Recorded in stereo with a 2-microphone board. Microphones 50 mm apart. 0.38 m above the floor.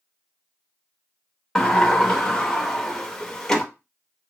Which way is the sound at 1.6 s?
10° left (ahead or behind).